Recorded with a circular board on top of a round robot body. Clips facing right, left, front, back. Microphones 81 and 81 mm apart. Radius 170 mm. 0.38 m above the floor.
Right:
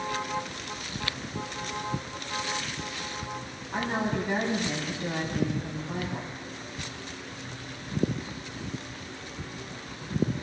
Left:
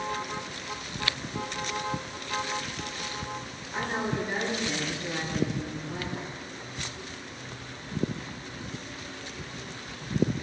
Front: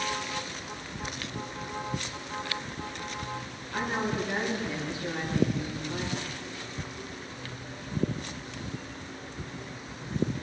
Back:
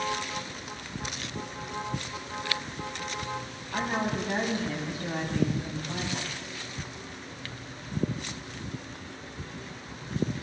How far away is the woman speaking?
About 4 m.